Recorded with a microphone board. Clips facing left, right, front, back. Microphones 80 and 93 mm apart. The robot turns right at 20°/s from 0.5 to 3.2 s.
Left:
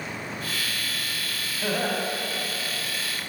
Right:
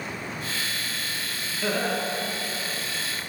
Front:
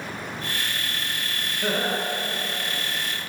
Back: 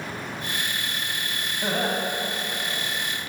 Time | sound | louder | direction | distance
1.6 | laughter | even, even | 155° left | 1.8 m